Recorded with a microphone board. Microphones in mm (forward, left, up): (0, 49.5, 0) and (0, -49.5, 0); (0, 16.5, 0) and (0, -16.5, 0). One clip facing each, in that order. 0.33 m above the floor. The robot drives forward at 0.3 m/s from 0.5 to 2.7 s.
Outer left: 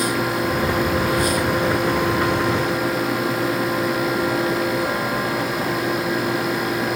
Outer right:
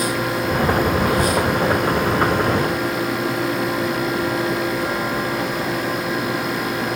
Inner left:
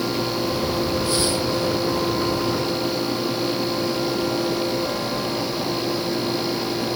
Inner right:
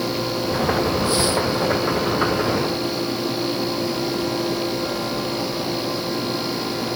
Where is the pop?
No pop in this recording.